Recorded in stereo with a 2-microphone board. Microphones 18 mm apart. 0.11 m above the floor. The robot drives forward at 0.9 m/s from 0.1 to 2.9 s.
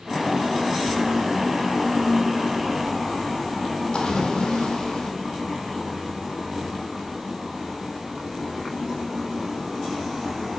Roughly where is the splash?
Left.